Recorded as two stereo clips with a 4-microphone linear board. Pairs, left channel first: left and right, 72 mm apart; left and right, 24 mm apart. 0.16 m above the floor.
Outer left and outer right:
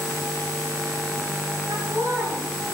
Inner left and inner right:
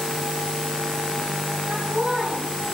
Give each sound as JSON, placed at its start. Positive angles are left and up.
{"t": 1.7, "sound": "laughter", "side_deg": -55, "distance_m": 5.5}